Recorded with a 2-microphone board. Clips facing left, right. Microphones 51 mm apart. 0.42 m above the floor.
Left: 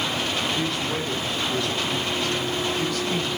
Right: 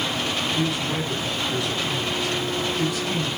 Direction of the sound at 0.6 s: 15° right (ahead or behind).